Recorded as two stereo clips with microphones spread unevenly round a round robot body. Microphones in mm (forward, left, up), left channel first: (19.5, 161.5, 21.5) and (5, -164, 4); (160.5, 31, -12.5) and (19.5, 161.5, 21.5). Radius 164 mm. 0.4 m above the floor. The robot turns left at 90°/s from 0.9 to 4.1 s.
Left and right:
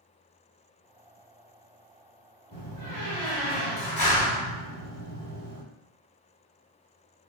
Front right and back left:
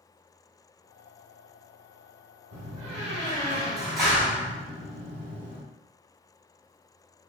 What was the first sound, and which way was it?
A door slam, 175° left.